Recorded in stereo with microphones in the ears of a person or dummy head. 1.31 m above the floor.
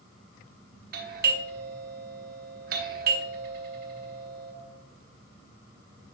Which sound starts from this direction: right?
A doorbell, at 0.9 s.